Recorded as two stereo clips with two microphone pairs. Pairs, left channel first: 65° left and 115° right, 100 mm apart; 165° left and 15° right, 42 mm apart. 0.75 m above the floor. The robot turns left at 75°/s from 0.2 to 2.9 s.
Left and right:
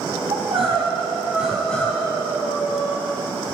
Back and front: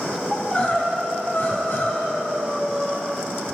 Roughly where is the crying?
Right.